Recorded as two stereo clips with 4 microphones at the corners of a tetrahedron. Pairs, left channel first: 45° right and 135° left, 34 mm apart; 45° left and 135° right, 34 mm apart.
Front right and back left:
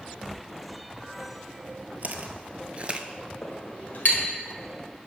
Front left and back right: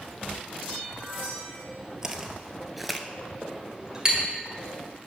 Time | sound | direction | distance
2.0 | footsteps | 155° left | 0.9 m
3.4 | a clink | 70° right | 1.5 m